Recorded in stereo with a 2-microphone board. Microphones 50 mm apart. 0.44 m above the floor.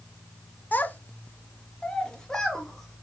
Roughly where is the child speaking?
Left.